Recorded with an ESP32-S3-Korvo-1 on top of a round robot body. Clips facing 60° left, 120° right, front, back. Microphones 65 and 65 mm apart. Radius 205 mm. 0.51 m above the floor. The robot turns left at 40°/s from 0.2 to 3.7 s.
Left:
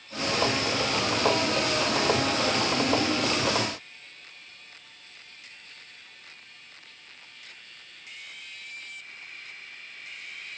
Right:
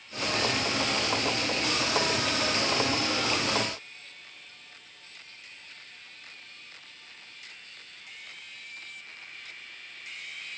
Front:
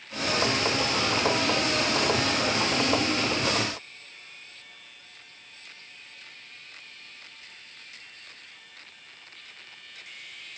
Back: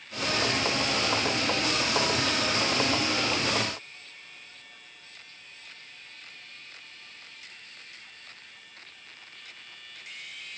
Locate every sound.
Only background noise.